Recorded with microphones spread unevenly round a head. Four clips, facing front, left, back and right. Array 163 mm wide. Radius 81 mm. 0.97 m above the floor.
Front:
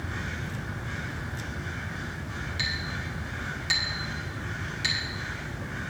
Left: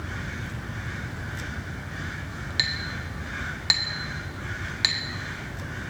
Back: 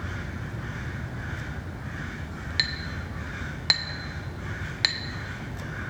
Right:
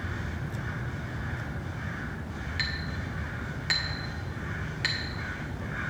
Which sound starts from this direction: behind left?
A clink, at 2.6 s.